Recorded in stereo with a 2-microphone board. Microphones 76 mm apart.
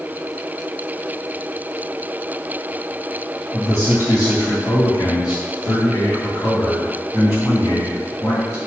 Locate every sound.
3.5 s a man speaking: 45° left (ahead or behind), 0.9 m; by 8.6 s 40° left (ahead or behind), 3 m